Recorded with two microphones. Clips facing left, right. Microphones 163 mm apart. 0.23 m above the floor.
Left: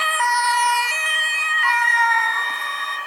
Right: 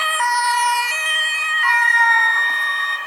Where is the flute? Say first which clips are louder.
Right 1 dB; 25° left (ahead or behind), 2 m.